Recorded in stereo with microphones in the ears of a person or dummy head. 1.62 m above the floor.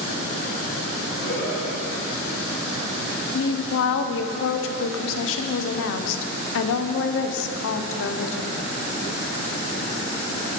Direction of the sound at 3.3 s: 70° left (ahead or behind).